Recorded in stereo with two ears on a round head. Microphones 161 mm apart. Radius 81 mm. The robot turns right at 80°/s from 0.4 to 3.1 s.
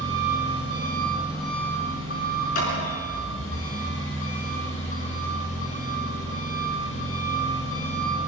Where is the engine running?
80° right, 8.5 m; by 8.3 s 135° left, 8.5 m.